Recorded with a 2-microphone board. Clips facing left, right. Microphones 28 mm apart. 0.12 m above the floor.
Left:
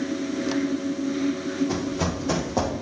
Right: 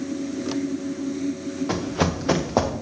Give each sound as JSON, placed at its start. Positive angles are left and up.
{"t": 1.7, "sound": "running footsteps", "side_deg": -60, "distance_m": 1.6}